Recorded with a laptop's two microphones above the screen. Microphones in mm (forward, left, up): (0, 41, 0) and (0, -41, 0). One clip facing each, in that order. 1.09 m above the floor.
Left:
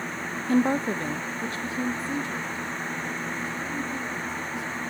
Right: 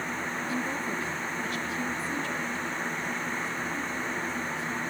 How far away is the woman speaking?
About 0.5 m.